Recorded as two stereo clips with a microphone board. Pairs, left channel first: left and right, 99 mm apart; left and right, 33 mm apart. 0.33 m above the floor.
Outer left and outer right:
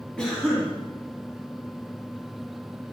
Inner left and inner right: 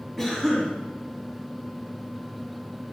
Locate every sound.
0.2 s a cough: 10° left (ahead or behind), 2.5 m